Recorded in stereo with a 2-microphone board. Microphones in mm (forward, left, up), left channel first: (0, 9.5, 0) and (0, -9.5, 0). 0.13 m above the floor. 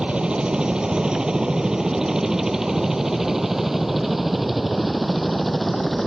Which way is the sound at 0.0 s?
60° right (ahead or behind).